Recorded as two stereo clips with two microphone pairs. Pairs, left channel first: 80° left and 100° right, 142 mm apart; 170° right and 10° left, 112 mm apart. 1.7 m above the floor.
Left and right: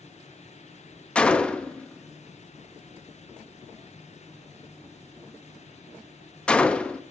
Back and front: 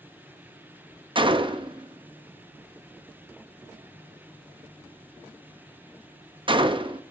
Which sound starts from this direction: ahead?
A gunshot, at 1.1 s.